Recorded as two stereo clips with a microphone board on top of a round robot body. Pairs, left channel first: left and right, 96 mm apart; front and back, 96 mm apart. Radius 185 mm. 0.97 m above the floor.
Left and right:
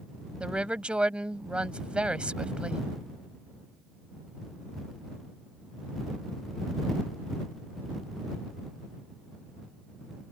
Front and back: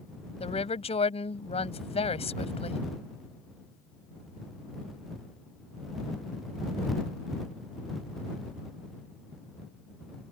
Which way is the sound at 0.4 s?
10° right.